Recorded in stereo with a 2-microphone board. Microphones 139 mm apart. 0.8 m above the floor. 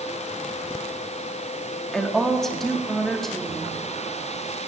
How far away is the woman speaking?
About 1.8 m.